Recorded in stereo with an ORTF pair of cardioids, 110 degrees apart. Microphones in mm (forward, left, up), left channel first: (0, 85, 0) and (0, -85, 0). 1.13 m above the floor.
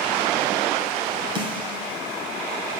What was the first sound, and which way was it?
A snare drum, 30° right.